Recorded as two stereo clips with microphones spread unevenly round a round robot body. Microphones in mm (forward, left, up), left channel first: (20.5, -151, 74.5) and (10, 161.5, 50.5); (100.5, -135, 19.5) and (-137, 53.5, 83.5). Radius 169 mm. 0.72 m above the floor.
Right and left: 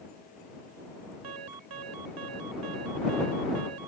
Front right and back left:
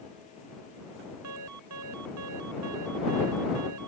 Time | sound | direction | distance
1.2 | an alarm | 105° left | ?